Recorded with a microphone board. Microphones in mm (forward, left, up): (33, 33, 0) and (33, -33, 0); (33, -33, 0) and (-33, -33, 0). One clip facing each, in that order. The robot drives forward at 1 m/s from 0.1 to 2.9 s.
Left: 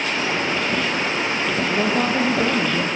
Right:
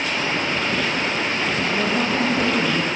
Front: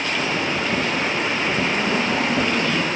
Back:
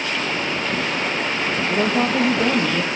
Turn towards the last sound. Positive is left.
turn(degrees=155)